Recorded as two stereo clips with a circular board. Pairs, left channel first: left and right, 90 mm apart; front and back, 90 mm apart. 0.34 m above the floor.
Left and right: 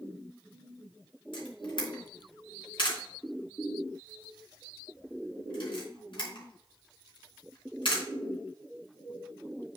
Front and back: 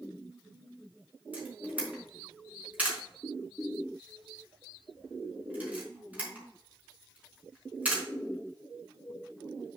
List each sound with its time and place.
1.3 s a camera shutter: 110° left, 4 m